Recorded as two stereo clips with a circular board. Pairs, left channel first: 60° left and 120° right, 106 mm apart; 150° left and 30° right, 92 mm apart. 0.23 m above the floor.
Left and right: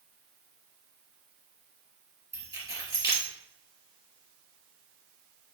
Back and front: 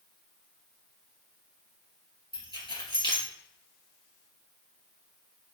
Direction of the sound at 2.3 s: Straight behind.